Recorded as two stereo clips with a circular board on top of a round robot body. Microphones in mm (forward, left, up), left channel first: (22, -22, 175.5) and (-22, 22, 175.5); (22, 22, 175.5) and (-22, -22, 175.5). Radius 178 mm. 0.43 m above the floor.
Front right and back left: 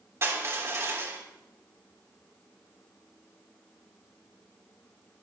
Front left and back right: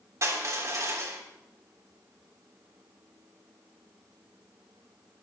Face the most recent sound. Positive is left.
turn(degrees=-175)